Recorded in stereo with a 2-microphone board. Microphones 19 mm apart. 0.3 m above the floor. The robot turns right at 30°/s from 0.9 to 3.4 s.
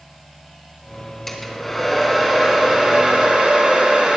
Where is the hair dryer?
155° left, 2.5 m; by 4.2 s 140° right, 2.5 m.